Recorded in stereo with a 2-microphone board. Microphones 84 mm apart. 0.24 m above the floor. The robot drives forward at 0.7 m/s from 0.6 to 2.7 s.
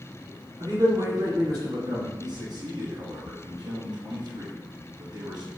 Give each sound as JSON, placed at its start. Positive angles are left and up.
{"t": 0.6, "sound": "a man speaking", "side_deg": -55, "distance_m": 1.9}
{"t": 2.2, "sound": "a man speaking", "side_deg": -55, "distance_m": 2.0}